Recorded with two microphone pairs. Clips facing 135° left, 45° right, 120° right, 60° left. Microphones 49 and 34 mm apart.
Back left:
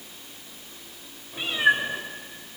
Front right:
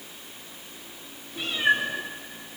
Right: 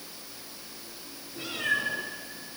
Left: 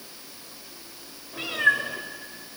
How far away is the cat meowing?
About 4 m.